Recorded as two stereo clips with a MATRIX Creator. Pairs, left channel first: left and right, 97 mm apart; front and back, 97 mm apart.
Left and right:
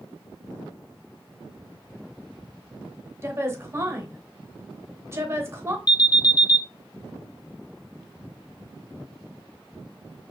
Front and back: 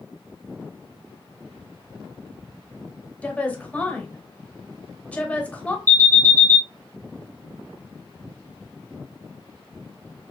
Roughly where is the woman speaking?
Ahead right.